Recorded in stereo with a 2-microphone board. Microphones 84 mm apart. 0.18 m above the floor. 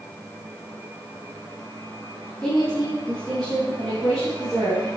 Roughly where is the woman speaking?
Centre.